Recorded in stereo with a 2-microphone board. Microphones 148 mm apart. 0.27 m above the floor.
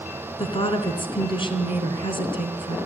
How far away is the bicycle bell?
No bicycle bell in this recording.